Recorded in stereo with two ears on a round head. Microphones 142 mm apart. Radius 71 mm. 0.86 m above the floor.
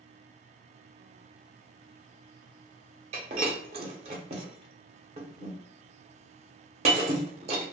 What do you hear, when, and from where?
3.1 s breaking glass: 40° right (ahead or behind), 0.7 m